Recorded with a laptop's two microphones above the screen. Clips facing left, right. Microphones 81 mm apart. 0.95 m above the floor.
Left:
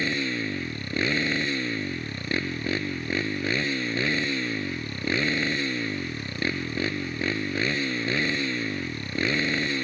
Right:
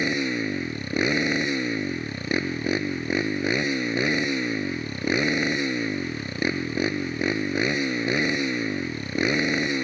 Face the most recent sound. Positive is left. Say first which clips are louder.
# right 3 dB
turn(degrees=-15)  # may be behind; listen again after turning